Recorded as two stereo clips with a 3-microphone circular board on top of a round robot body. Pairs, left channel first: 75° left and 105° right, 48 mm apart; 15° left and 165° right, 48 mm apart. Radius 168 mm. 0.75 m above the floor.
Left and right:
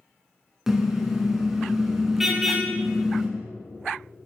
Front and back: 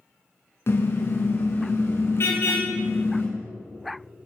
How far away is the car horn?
About 6.5 m.